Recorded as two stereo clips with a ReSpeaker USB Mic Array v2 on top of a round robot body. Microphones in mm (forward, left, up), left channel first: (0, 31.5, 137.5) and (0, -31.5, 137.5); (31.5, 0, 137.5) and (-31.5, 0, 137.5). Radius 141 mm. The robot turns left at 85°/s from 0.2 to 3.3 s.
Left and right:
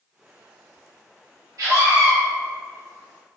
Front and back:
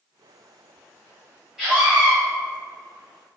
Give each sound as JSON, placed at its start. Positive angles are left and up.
{"t": 1.6, "sound": "a scream", "azimuth_deg": -100, "distance_m": 1.4}